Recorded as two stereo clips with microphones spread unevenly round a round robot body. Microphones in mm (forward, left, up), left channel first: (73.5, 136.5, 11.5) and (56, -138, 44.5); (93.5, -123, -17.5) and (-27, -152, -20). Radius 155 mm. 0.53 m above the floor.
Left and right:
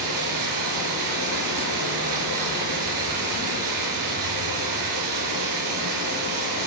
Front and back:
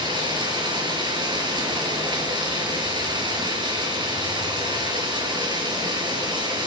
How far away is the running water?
About 6 m.